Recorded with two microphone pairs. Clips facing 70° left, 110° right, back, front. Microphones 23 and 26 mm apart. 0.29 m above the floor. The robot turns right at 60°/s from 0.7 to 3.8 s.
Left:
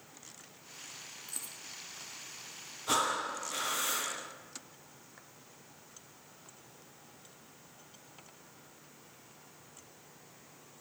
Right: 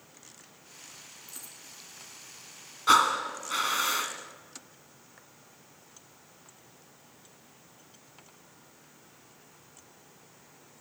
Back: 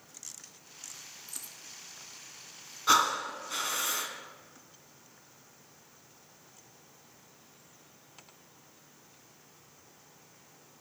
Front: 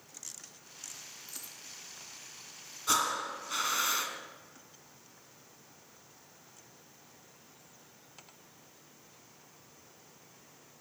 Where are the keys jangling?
75° right, 2.5 m; by 1.6 s 60° right, 2.5 m.